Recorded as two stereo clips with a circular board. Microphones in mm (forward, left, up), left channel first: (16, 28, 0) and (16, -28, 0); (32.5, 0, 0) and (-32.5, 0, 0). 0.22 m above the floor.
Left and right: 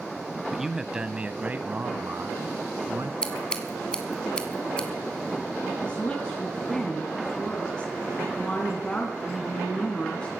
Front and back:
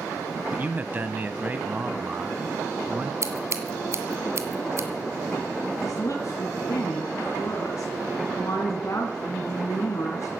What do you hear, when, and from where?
0.5 s a man speaking: 170° right, 1.2 m; by 3.1 s 110° right, 1.9 m
3.2 s scissors: 160° left, 2 m
5.8 s a woman speaking: 20° left, 2.5 m